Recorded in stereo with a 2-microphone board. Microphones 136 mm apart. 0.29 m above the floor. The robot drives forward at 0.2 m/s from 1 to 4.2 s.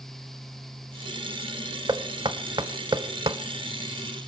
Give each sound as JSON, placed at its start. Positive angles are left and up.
{"t": 1.9, "sound": "knocking", "side_deg": -30, "distance_m": 0.8}